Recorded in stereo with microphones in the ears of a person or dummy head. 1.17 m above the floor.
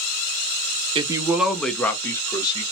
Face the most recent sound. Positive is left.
turn(degrees=25)  # may be behind; listen again after turning